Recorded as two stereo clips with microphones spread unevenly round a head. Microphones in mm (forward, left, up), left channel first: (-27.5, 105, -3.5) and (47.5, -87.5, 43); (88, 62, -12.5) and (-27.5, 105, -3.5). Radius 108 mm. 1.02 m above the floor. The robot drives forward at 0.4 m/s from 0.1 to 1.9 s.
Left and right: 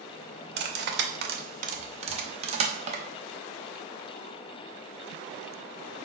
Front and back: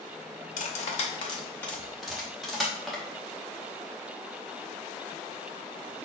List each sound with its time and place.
0.6 s cutlery clinking: 45° right, 0.6 m; by 3.0 s 115° right, 0.5 m